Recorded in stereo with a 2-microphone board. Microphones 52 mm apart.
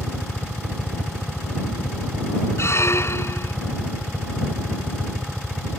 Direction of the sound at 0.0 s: 10° right (ahead or behind).